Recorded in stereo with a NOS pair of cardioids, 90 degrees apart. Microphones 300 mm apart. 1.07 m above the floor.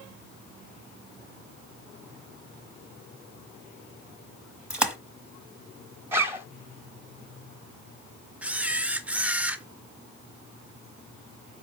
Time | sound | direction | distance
4.7 | a splash | 5° right | 0.8 m
6.1 | a zipper | 10° right | 0.8 m
8.4 | a camera shutter | 5° right | 0.5 m